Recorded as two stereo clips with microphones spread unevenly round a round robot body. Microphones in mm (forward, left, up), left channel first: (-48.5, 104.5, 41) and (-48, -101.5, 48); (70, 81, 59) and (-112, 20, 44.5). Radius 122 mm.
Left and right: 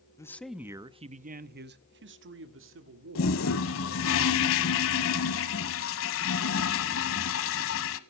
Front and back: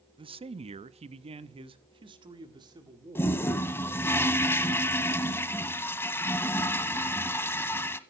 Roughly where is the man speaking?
Behind left.